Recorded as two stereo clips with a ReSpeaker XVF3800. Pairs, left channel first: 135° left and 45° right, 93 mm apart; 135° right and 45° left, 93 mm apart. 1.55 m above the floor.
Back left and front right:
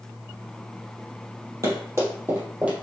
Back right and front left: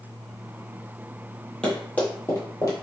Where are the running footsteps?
60° right, 1.9 m; by 2.7 s 110° right, 1.9 m.